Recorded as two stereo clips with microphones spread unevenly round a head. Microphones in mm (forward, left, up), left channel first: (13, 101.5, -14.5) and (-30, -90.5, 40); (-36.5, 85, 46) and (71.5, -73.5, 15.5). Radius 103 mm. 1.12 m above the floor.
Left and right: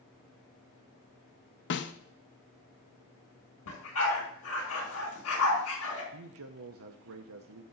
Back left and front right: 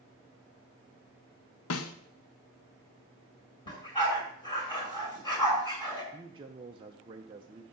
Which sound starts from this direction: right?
A man speaking, at 6.1 s.